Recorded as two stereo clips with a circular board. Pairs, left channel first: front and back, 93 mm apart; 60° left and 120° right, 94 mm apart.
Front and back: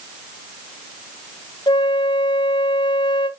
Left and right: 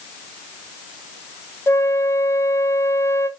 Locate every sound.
1.7 s a flute: 5° left, 0.6 m